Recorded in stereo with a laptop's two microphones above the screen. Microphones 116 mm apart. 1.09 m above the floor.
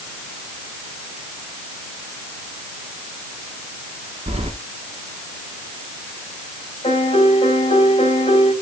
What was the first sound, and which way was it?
Keys jangling, 65° right (ahead or behind).